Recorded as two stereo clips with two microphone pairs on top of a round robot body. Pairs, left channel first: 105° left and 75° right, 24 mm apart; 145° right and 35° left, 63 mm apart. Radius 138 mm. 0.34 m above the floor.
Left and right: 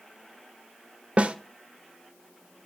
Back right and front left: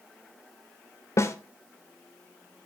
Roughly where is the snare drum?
Right.